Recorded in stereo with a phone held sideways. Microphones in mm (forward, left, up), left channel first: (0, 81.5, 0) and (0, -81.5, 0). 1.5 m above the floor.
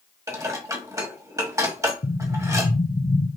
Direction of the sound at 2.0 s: 40° left (ahead or behind).